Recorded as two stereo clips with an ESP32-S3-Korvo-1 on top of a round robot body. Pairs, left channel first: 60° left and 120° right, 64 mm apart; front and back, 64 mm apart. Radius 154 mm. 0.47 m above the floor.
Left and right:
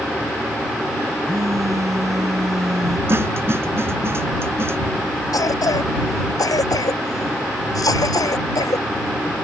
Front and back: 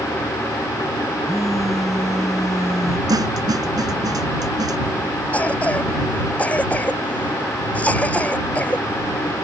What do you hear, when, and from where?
1.2 s a phone buzzing: 85° right
3.1 s a snare drum: 170° right
5.3 s a cough: 70° left